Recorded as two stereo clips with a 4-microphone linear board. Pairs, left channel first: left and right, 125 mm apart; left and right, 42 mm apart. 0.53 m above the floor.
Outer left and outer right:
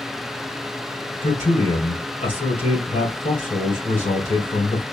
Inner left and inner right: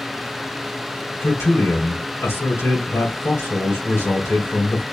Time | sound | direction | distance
1.2 | a man speaking | 80° left | 3.5 m